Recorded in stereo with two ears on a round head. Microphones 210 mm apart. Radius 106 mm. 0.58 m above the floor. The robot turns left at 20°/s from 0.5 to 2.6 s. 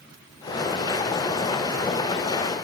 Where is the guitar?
No guitar in this recording.